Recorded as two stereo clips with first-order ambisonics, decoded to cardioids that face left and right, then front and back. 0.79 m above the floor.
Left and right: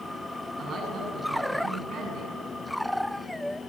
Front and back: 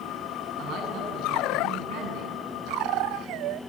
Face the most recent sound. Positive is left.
turn(degrees=-140)